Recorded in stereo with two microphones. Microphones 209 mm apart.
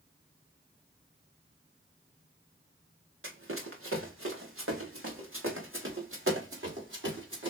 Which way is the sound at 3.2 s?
75° right (ahead or behind).